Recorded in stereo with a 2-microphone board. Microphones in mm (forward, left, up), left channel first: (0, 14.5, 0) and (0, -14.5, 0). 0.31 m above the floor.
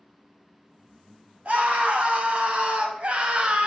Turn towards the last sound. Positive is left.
turn(degrees=-40)  # may be behind; listen again after turning